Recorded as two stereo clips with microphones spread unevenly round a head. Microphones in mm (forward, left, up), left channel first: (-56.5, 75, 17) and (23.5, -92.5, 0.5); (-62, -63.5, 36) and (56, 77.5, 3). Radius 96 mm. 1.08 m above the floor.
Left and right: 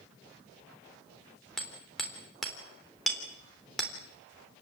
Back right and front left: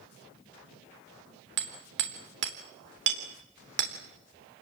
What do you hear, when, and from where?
1.6 s hammering: 25° left, 3.5 m